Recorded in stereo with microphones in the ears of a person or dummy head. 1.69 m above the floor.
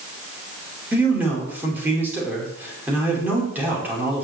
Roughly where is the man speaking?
Centre.